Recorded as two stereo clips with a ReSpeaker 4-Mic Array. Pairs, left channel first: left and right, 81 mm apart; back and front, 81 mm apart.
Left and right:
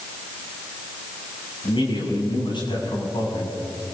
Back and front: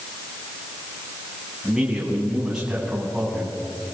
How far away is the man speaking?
About 7.5 m.